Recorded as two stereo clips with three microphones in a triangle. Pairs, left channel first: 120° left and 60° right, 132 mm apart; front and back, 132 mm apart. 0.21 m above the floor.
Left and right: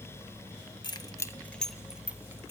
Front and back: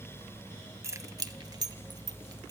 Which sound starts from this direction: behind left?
Keys jangling, at 0.8 s.